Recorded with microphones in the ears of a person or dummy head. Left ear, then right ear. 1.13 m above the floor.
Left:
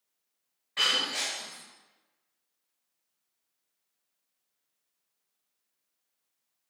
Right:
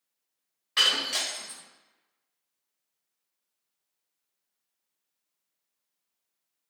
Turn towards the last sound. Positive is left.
turn(degrees=-60)  # may be behind; listen again after turning